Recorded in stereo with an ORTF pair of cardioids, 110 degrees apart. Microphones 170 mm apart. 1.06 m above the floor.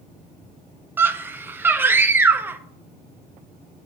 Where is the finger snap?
No finger snap in this recording.